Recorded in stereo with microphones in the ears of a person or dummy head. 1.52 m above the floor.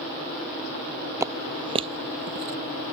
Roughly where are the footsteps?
Centre.